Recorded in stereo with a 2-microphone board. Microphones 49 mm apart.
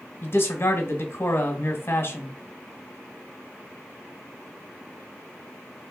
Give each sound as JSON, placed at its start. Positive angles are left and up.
{"t": 0.2, "sound": "a man speaking", "side_deg": 45, "distance_m": 1.4}